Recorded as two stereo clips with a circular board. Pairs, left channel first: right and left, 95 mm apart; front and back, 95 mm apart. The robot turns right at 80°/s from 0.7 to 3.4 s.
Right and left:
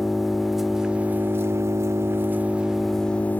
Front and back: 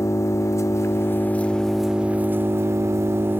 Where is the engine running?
5° left, 0.7 m; by 3.4 s 140° right, 0.7 m.